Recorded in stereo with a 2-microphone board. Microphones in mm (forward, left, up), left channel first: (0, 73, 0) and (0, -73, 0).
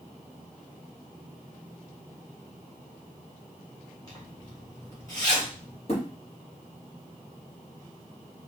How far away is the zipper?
About 3 m.